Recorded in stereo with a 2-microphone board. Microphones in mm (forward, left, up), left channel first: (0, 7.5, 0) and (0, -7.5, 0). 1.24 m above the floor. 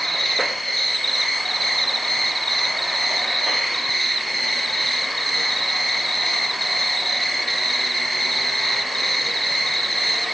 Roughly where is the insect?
Centre.